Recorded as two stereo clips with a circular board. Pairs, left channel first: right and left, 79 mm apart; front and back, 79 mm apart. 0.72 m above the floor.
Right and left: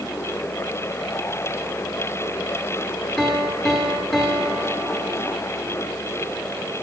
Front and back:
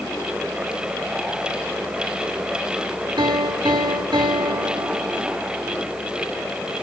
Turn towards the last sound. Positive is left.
turn(degrees=180)